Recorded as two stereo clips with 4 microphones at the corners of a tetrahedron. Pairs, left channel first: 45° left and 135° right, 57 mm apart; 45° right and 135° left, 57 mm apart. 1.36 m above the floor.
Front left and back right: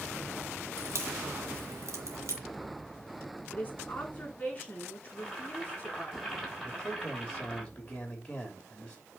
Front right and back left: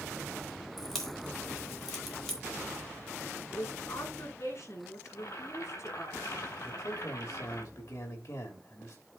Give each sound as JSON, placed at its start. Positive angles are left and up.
{"t": 0.8, "sound": "a crack", "azimuth_deg": -125, "distance_m": 2.0}
{"t": 3.5, "sound": "a woman speaking", "azimuth_deg": -20, "distance_m": 4.5}
{"t": 5.1, "sound": "boiling", "azimuth_deg": -45, "distance_m": 4.0}
{"t": 6.6, "sound": "a man speaking", "azimuth_deg": -25, "distance_m": 3.0}